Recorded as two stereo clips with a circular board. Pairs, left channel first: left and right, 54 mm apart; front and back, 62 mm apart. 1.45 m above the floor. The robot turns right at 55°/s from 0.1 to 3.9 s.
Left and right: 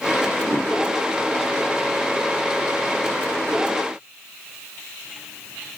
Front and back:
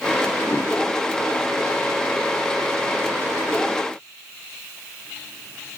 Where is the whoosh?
75° right, 0.9 m; by 0.7 s 60° right, 0.9 m.